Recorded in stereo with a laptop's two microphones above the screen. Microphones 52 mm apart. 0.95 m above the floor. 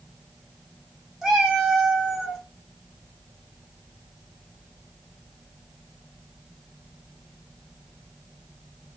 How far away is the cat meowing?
About 0.6 m.